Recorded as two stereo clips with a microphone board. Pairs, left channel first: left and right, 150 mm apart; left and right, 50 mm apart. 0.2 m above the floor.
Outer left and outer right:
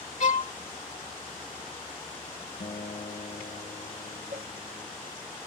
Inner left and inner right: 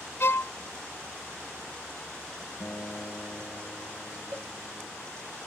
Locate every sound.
0.2 s a violin: 55° left (ahead or behind)
2.6 s a guitar: 45° left (ahead or behind)
4.3 s a cowbell: 40° right (ahead or behind)